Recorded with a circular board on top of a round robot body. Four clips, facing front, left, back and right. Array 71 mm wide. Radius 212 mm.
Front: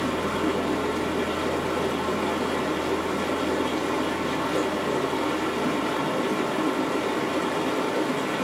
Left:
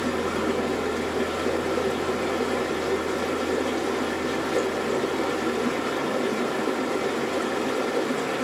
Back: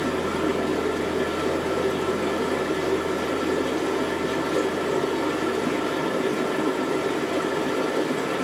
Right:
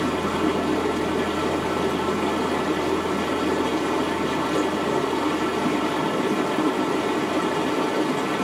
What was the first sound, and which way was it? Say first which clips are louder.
Running water: right 3 dB, back 1 dB; 75° right.